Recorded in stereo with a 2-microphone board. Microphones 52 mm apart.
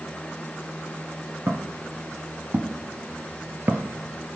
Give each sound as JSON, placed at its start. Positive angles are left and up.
{"t": 1.5, "sound": "footsteps", "side_deg": -35, "distance_m": 1.8}